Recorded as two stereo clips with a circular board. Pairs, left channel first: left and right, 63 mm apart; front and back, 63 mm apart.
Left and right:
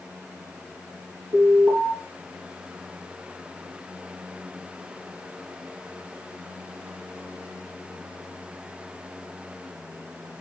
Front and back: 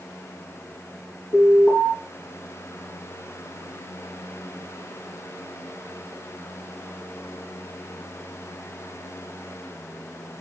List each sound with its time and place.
1.3 s an alarm: 45° right, 3 m